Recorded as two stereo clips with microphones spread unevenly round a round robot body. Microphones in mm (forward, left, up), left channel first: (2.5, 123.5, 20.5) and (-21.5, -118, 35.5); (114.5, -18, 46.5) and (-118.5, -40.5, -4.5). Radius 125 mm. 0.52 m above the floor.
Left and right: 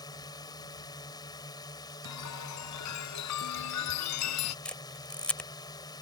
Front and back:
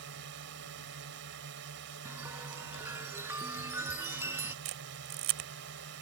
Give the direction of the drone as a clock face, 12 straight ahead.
7 o'clock.